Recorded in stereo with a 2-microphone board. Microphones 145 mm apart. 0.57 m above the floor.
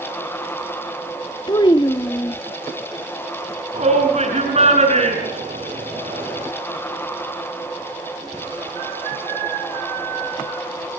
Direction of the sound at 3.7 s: 50° right (ahead or behind).